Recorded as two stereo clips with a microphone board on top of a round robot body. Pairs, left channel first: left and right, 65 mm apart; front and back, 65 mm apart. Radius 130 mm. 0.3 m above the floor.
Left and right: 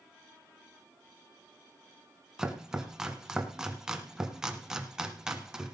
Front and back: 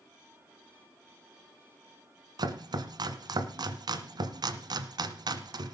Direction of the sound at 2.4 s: 170° right.